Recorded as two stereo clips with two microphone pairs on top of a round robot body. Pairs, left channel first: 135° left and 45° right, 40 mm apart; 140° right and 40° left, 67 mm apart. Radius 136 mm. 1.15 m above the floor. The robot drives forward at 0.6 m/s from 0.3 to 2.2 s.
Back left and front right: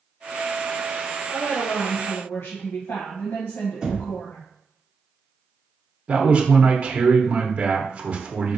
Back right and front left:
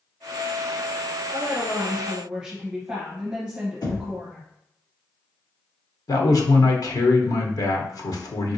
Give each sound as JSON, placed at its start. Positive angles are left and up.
{"t": 1.3, "sound": "a woman speaking", "azimuth_deg": 85, "distance_m": 0.9}
{"t": 3.8, "sound": "knocking", "azimuth_deg": -130, "distance_m": 2.0}
{"t": 6.1, "sound": "a man speaking", "azimuth_deg": -110, "distance_m": 0.9}